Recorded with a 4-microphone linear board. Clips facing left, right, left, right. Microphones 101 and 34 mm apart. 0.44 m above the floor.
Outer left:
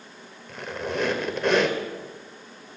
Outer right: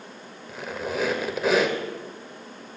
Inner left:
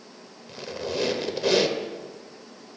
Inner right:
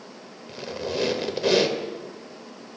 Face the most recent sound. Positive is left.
turn(degrees=-5)  # may be behind; listen again after turning